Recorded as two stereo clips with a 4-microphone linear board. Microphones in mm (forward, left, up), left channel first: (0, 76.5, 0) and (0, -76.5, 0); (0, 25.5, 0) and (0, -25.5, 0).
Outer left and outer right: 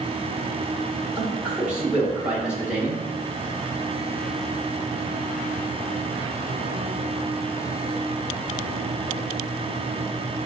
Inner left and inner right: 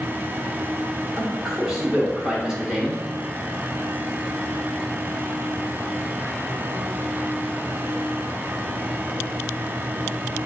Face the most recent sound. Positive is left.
turn(degrees=-10)  # may be behind; listen again after turning